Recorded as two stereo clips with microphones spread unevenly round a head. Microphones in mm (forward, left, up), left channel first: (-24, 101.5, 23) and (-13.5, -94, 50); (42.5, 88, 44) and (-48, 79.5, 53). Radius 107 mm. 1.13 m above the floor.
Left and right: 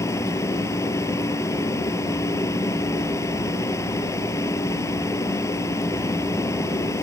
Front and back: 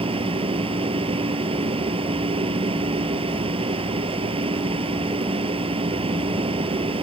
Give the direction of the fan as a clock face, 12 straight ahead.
6 o'clock.